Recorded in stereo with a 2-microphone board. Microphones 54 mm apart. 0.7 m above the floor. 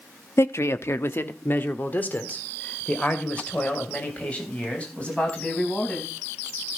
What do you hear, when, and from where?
0.4 s a man speaking: 50° left (ahead or behind), 0.7 m; by 6.1 s 20° left (ahead or behind), 4.5 m